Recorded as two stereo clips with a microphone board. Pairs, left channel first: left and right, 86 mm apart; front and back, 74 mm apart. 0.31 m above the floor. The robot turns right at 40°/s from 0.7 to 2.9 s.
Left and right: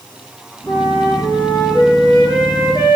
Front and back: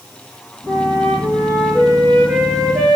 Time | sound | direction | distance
0.7 | a flute | 40° left | 1.7 m